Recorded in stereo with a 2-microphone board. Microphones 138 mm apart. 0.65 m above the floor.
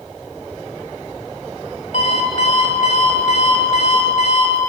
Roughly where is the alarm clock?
Left.